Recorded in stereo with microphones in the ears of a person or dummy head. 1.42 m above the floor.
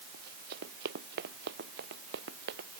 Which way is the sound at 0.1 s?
60° right (ahead or behind).